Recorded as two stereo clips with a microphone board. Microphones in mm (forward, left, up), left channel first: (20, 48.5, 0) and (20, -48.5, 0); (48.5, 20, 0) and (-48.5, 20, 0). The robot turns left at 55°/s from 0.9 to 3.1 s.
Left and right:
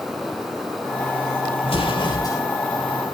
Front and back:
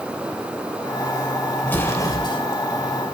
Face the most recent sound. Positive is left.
turn(degrees=-5)